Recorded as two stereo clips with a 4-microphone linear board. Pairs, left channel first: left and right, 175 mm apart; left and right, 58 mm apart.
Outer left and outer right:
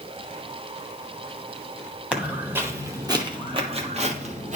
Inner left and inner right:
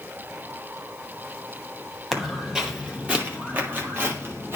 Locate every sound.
2.1 s footsteps: 5° right (ahead or behind), 1.5 m; by 4.6 s 45° right (ahead or behind), 1.6 m